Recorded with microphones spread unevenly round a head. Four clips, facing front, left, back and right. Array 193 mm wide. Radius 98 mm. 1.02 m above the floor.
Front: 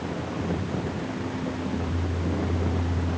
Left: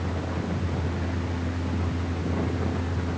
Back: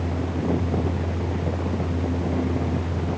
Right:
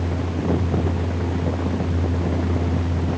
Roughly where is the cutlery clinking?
No cutlery clinking in this recording.